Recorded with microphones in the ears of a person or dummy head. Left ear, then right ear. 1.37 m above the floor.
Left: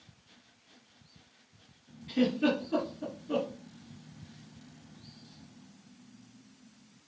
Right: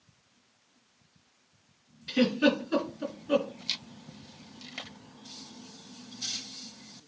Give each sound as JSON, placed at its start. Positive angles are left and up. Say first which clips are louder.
{"t": 2.1, "sound": "a giggle", "louder": "right 3 dB", "side_deg": -65, "distance_m": 4.0}